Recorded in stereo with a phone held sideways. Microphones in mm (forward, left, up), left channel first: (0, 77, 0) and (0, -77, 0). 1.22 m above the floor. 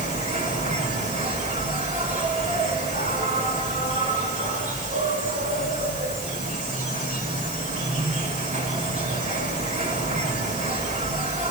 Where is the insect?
55° right (ahead or behind), 5.5 m.